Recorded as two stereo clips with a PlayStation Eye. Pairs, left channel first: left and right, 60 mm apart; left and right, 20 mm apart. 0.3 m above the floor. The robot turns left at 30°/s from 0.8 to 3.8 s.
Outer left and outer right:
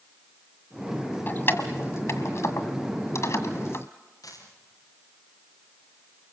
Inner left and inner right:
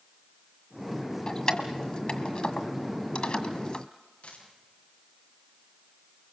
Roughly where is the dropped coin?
Left.